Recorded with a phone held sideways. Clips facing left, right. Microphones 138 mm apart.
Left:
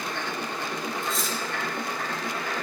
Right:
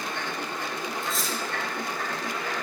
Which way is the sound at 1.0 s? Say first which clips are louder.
Left 1 dB; centre (ahead or behind).